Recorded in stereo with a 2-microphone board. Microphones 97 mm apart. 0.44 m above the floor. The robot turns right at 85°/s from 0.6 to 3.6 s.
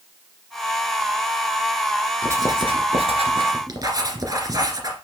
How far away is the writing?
About 2.0 m.